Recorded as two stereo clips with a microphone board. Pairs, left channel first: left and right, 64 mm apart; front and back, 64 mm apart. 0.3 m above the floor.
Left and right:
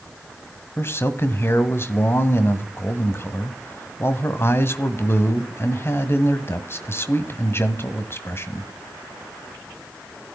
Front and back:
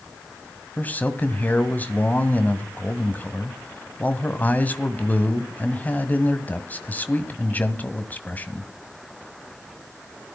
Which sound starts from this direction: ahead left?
A man speaking, at 0.8 s.